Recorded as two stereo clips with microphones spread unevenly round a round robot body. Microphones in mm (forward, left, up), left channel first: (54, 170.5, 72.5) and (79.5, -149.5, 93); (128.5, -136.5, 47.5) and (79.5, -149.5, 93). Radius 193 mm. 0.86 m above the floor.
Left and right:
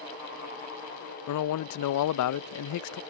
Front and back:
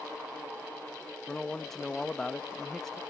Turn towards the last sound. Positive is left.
turn(degrees=65)